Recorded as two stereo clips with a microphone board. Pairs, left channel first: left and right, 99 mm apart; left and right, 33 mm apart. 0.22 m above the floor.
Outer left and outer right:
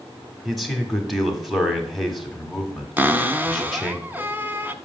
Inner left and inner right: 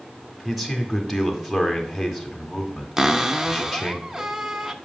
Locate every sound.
0.5 s a man speaking: centre (ahead or behind), 1.4 m
3.0 s a cupboard door: 20° right (ahead or behind), 0.6 m